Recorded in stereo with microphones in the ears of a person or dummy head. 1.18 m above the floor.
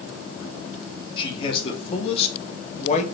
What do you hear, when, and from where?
1.2 s a man speaking: 25° left (ahead or behind), 2.5 m; by 3.0 s 35° left (ahead or behind), 1.6 m